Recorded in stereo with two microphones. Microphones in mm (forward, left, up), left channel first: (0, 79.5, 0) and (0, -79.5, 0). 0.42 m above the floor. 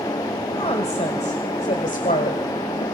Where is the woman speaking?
40° left (ahead or behind), 2 m; by 2.9 s 60° left (ahead or behind), 2.5 m.